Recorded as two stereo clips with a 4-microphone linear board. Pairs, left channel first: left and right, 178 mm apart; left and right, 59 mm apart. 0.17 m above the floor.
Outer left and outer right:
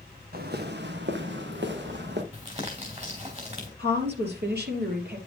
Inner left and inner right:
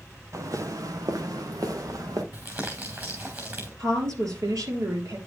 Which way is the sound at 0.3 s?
60° right (ahead or behind).